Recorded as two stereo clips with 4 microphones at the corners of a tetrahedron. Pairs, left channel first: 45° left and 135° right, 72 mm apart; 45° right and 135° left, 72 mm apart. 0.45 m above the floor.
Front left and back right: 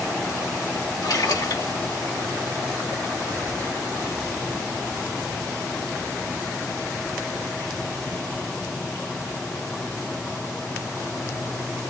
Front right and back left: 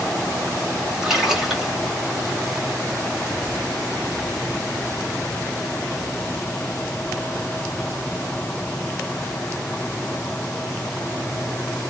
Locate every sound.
1.0 s a splash: 55° left, 1.6 m